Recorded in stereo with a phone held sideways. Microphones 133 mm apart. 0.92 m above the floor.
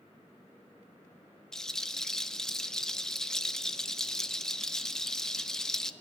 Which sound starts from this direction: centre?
A rattle, at 1.5 s.